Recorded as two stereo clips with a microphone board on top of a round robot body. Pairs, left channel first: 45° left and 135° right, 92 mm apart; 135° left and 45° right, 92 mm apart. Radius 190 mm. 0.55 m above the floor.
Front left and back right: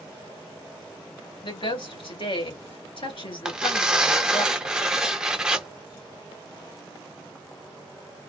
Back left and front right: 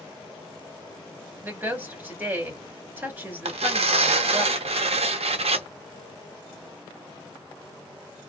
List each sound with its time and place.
1.4 s a woman speaking: 25° left, 3 m
3.5 s tearing paper: 50° right, 0.7 m